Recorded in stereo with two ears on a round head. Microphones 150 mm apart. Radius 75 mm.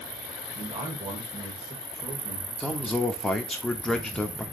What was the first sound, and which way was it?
A man speaking, 30° right (ahead or behind).